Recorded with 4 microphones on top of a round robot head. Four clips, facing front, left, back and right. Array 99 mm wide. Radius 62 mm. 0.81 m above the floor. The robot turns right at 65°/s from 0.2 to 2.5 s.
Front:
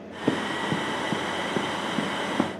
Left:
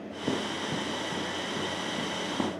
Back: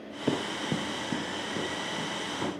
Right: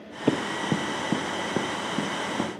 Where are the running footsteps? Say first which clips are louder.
Right 6 dB, front 4 dB; 70° right, 0.9 m; by 2.5 s 5° right, 2.5 m.